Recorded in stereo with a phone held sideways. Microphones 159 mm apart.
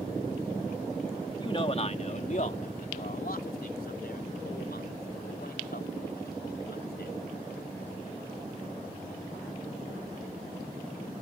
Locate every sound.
1.4 s a man speaking: 30° left (ahead or behind); by 7.2 s 85° left